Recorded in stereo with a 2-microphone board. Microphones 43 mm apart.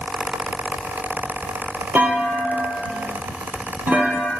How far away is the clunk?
About 1.8 m.